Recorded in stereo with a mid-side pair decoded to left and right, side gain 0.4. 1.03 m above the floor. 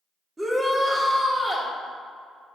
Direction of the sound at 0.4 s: 25° right.